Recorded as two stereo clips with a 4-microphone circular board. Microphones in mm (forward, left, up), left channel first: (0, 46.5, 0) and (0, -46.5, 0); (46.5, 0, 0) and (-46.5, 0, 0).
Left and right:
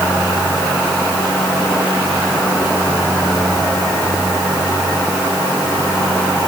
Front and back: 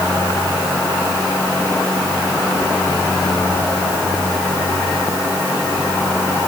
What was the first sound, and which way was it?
Only background noise.